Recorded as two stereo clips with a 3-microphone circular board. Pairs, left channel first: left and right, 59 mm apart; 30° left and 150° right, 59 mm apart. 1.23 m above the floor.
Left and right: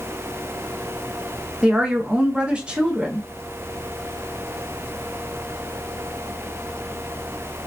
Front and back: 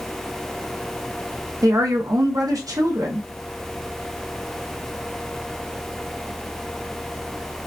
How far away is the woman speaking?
About 1.0 m.